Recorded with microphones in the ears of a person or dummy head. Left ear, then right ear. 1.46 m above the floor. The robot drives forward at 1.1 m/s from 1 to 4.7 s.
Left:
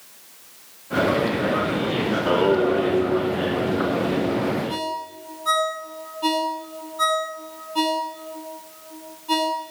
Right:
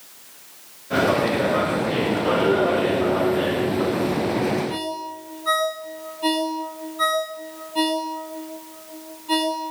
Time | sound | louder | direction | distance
2.1 | singing | left 1 dB | 40° left (ahead or behind) | 3.5 m
4.7 | a ringtone | even | 15° left (ahead or behind) | 5.5 m